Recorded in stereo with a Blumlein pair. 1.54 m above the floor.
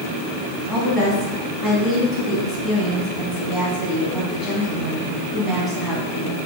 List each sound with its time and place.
0.7 s a woman speaking: 5° left, 2.0 m